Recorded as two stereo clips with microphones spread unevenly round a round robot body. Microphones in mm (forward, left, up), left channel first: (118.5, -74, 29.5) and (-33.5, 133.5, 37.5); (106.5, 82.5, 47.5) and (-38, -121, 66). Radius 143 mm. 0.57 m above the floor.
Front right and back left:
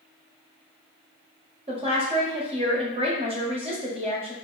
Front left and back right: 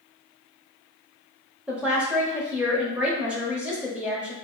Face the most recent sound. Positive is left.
turn(degrees=145)